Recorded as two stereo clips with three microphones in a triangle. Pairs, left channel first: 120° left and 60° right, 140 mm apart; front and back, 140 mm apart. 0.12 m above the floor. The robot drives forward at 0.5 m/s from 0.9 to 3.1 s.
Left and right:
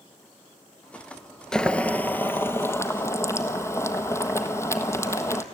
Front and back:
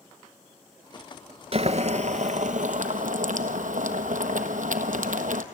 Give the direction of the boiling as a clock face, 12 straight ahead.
5 o'clock.